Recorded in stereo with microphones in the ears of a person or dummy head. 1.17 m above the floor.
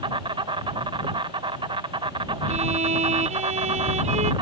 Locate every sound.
0.0 s an insect: 20° right (ahead or behind)
2.5 s a violin: 35° right (ahead or behind)